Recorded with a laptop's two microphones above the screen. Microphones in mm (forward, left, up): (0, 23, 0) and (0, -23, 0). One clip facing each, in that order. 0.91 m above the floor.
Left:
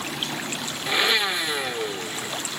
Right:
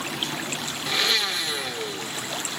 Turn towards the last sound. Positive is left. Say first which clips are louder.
# left 3 dB
turn(degrees=20)  # may be behind; listen again after turning